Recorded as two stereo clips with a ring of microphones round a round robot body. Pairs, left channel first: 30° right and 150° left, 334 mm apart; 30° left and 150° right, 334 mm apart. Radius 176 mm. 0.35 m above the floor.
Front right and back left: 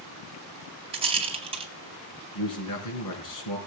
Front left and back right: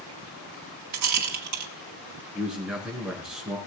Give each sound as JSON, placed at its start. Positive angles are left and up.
{"t": 0.9, "sound": "a rattle", "azimuth_deg": -140, "distance_m": 2.0}
{"t": 2.4, "sound": "a man speaking", "azimuth_deg": -60, "distance_m": 4.0}